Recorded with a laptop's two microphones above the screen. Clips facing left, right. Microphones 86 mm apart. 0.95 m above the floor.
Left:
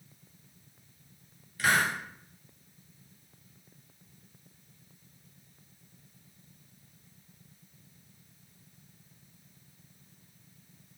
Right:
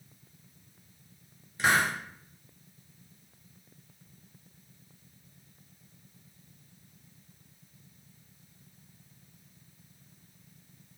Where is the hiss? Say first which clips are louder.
Right 1 dB; 25° right (ahead or behind), 0.9 m.